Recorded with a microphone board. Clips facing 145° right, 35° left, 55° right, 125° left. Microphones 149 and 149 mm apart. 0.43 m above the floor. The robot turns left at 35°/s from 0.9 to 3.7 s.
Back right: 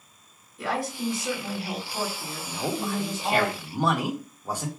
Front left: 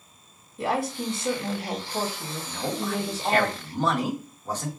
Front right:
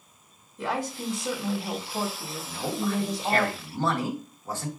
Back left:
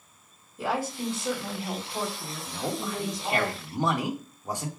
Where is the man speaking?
160° right, 0.9 m; by 4.7 s 160° left, 0.9 m.